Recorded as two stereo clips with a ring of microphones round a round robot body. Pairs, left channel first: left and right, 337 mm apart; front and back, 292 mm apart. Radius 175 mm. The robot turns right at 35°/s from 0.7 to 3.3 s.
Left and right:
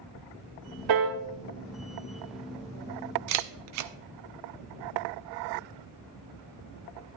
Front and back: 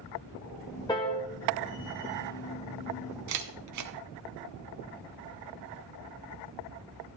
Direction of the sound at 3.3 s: 135° right.